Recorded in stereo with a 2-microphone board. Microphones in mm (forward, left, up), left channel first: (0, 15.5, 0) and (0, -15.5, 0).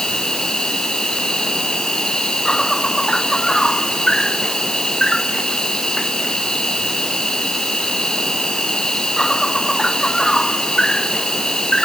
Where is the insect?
20° left (ahead or behind).